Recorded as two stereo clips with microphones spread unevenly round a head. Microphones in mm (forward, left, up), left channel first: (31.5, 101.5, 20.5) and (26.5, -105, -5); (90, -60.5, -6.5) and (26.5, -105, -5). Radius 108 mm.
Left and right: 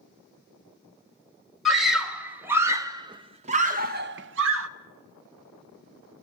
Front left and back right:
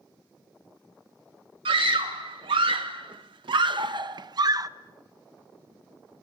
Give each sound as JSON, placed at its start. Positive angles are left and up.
{"t": 1.6, "sound": "a scream", "azimuth_deg": 180, "distance_m": 2.0}